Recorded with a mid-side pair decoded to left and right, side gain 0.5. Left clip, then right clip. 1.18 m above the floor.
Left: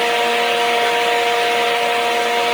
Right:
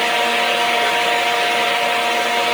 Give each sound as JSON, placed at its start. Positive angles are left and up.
{"t": 0.0, "sound": "a fan", "azimuth_deg": 0, "distance_m": 1.6}